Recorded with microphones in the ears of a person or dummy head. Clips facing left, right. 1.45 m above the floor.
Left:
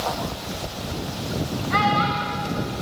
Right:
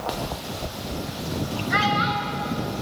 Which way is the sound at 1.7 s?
20° right (ahead or behind).